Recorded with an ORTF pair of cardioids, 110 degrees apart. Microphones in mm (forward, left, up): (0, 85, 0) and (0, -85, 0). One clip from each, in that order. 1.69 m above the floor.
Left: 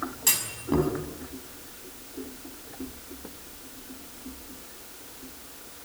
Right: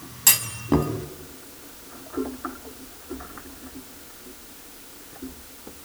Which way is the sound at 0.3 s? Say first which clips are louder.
Right 6 dB; 35° right.